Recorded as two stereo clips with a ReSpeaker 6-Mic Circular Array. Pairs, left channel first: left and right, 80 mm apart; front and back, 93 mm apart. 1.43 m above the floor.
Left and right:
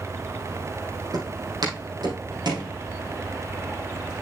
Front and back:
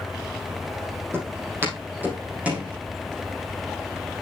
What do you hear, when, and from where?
1.1 s footsteps: 120° right, 4 m; by 2.7 s 105° right, 5 m